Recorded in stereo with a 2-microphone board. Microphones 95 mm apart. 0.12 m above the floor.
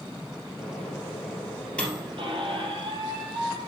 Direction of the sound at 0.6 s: 10° left (ahead or behind).